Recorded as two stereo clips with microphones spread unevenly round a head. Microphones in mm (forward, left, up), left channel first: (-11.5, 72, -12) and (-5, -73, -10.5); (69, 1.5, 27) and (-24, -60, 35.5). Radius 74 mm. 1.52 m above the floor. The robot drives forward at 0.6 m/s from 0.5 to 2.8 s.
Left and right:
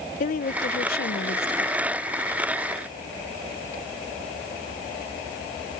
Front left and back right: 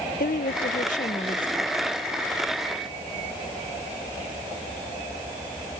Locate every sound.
0.2 s a woman speaking: 55° left; by 1.9 s 110° left